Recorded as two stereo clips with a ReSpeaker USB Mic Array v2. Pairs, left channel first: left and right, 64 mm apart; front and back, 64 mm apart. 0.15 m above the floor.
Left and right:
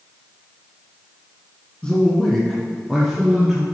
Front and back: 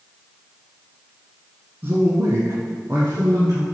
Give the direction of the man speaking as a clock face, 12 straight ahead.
7 o'clock.